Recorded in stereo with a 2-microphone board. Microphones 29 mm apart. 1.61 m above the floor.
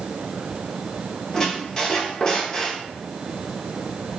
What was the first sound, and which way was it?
A squeak, 20° left (ahead or behind).